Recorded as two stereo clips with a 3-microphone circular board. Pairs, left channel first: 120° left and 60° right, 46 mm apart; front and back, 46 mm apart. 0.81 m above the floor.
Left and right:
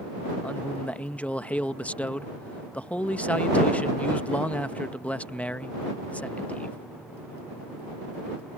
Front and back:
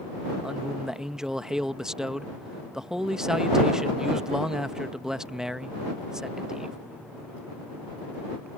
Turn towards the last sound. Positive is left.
turn(degrees=115)